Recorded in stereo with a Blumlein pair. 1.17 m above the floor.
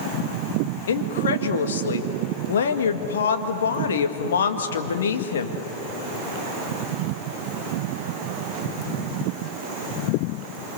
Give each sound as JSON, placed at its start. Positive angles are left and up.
{"t": 0.9, "sound": "a woman speaking", "azimuth_deg": 65, "distance_m": 1.9}